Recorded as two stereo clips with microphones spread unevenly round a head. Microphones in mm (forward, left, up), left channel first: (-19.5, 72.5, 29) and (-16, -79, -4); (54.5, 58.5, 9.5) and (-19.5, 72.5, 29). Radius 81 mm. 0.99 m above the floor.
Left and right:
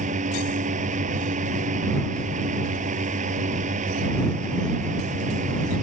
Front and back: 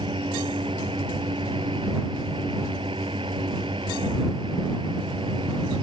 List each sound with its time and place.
0.0 s a fan: 130° right